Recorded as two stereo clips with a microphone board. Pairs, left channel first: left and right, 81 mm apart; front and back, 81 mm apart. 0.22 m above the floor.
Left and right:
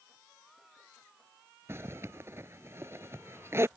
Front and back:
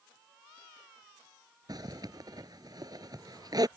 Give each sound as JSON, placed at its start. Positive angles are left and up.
{"t": 1.7, "sound": "a zipper", "azimuth_deg": -145}